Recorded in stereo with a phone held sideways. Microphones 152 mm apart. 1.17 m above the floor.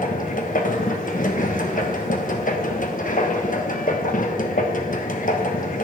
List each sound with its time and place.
0.0 s a machine running: 65° left (ahead or behind), 1.1 m